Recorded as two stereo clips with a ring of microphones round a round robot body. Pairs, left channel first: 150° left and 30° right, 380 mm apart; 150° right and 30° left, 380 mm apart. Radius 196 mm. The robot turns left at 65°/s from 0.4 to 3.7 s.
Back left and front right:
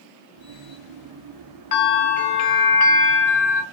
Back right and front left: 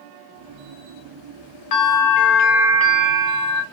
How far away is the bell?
About 0.9 m.